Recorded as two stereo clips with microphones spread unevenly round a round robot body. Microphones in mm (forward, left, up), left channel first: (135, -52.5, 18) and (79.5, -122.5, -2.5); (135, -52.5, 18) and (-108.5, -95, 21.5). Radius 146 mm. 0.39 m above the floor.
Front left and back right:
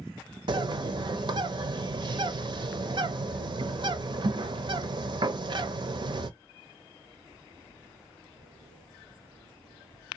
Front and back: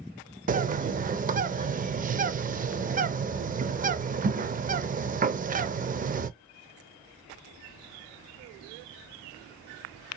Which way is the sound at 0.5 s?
110° right.